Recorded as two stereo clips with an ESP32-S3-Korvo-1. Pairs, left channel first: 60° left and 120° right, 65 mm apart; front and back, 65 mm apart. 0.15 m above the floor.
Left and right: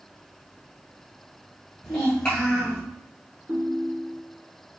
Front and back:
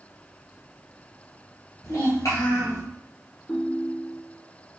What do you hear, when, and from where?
1.8 s a child speaking: 15° right, 1.5 m
3.5 s a ringtone: 80° right, 0.7 m